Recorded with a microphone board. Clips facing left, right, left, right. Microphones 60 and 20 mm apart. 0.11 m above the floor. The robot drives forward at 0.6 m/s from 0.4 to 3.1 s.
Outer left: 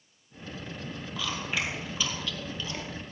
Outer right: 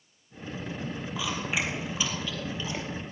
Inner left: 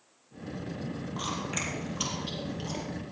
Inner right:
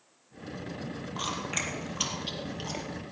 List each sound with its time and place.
1.2 s chewing: 15° right (ahead or behind), 3 m; by 2.9 s 20° right (ahead or behind), 2 m